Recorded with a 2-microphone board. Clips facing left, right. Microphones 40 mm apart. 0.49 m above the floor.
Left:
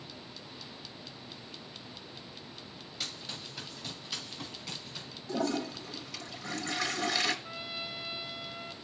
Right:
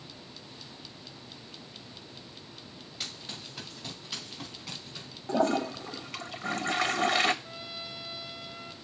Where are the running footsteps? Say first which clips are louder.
Even; 20° right (ahead or behind), 2.5 m; by 5.1 s 15° right (ahead or behind), 3.5 m.